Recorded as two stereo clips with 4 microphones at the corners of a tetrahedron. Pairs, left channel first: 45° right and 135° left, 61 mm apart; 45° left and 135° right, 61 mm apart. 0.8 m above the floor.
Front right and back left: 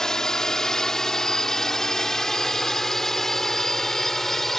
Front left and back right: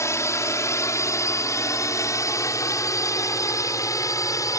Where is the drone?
35° left; by 4.6 s 40° left.